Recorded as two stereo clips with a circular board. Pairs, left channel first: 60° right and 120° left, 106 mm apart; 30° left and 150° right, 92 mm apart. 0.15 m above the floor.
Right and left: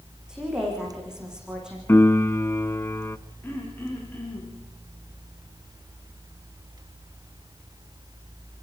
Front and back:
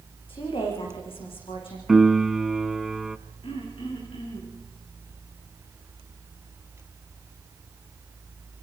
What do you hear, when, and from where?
0.3 s a woman speaking: 35° left, 9.5 m
1.9 s a piano: 70° right, 0.6 m
3.4 s throat clearing: 10° left, 7 m